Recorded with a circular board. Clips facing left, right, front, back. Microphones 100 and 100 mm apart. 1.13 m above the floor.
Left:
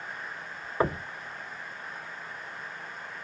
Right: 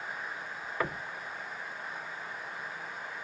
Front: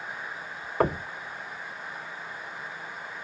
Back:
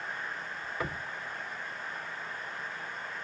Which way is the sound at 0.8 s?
30° left.